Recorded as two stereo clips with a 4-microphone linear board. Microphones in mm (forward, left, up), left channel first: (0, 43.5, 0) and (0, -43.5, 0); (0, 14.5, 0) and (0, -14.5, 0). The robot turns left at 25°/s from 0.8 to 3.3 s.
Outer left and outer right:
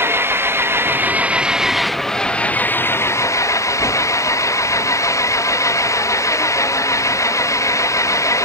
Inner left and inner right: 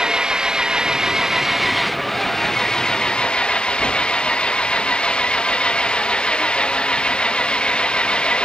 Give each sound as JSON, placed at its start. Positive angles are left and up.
{"t": 0.0, "sound": "an engine running", "azimuth_deg": -155}